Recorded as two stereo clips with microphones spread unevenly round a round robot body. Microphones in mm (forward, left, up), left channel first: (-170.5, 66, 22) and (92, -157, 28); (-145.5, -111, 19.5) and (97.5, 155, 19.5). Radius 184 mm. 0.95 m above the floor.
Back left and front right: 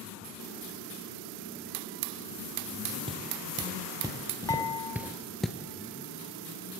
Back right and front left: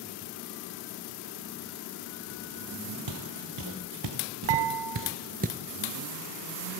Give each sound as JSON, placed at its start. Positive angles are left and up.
{"t": 3.1, "sound": "footsteps", "azimuth_deg": 35, "distance_m": 1.8}
{"t": 4.5, "sound": "dishes clattering", "azimuth_deg": 60, "distance_m": 0.8}